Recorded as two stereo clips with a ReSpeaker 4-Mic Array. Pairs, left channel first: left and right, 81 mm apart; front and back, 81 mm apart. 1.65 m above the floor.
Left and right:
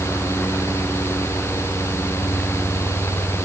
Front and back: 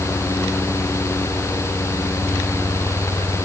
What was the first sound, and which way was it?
Only background noise.